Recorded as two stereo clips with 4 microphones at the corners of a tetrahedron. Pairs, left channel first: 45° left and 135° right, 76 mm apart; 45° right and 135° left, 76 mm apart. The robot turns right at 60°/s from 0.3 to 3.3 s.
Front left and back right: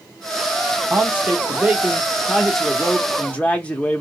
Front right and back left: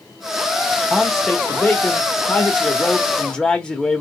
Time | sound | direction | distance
0.9 | a man speaking | 135° right | 0.9 m